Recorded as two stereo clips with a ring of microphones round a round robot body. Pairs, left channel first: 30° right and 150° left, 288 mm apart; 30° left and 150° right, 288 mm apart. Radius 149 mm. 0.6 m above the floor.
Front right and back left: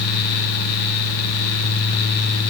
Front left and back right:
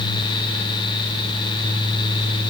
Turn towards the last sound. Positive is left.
No sound to turn to.